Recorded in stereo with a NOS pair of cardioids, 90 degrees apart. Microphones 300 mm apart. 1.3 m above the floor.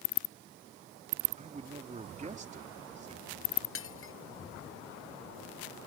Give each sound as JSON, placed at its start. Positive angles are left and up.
{"t": 1.4, "sound": "a man speaking", "azimuth_deg": -25}
{"t": 3.8, "sound": "breaking glass", "azimuth_deg": 45}